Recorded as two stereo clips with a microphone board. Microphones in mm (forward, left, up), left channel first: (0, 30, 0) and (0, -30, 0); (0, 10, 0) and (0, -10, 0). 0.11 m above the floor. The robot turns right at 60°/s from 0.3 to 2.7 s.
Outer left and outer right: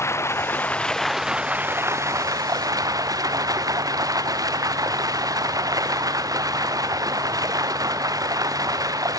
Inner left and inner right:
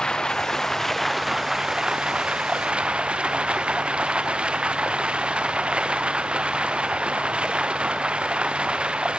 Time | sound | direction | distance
0.0 | running water | 130° left | 0.8 m